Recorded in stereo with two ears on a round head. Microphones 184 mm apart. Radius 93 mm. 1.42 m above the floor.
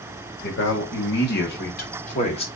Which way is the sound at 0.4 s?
65° left (ahead or behind).